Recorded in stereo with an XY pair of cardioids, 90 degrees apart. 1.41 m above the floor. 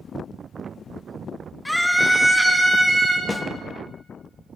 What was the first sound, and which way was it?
A scream, 10° left.